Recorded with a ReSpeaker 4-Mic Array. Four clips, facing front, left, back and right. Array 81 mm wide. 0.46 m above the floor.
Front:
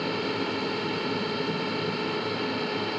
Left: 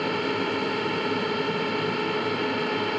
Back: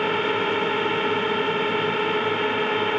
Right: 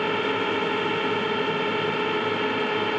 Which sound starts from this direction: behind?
A drone, at 0.0 s.